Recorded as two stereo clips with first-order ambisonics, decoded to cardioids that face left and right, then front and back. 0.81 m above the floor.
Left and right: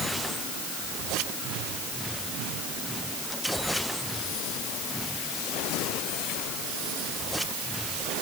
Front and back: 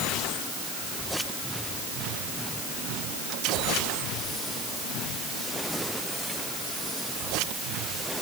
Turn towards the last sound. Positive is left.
No sound to turn to.